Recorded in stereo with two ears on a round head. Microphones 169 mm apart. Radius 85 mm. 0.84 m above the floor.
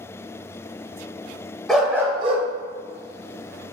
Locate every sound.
1.7 s a dog barking: centre (ahead or behind), 0.8 m; by 3.7 s 65° right (ahead or behind), 1.2 m